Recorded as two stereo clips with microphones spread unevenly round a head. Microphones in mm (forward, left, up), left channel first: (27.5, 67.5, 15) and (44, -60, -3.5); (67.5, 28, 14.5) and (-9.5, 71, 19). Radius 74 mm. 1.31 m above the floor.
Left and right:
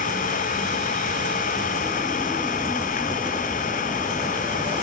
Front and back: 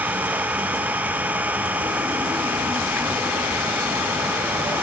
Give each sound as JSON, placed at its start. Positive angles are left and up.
{"t": 0.0, "sound": "an engine running", "azimuth_deg": 80}